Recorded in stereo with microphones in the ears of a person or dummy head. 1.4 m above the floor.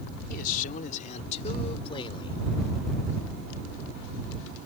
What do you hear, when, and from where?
0.3 s a man speaking: 50° left (ahead or behind); by 2.4 s 30° left (ahead or behind)